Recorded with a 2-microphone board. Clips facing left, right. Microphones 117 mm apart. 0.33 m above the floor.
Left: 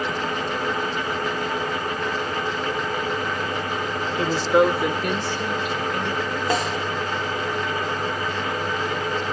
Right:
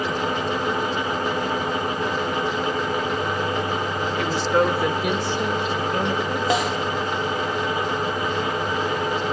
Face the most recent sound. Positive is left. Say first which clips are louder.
# right 2 dB
turn(degrees=-10)  # may be behind; listen again after turning